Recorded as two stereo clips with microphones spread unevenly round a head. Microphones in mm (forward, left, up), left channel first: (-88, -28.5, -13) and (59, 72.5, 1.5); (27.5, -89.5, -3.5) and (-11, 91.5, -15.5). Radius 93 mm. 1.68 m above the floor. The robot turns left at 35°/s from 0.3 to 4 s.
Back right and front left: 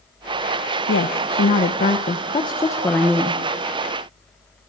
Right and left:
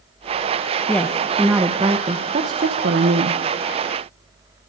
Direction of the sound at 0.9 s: 155° right.